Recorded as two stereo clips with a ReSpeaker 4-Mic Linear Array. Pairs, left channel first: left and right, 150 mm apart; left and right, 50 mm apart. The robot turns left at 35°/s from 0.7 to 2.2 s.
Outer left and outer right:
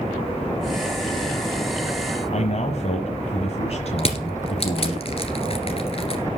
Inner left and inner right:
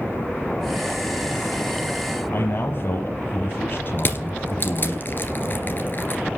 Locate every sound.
2.3 s a man speaking: 45° left (ahead or behind), 1.5 m
4.0 s crushing: 40° left (ahead or behind), 1.9 m